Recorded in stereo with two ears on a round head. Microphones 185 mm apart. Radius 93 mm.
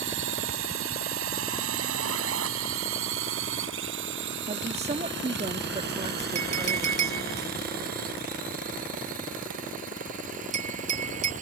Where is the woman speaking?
30° right (ahead or behind).